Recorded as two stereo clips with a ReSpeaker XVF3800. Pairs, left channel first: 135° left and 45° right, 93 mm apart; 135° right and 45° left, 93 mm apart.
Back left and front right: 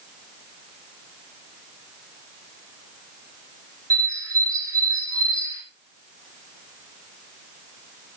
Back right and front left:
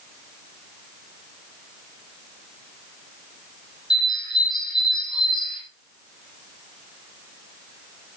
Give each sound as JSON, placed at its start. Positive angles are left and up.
{"t": 3.9, "sound": "a bird", "azimuth_deg": -95, "distance_m": 3.0}